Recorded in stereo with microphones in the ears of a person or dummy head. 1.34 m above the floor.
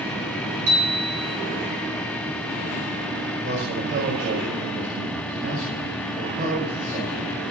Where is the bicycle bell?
25° right (ahead or behind), 6.5 m.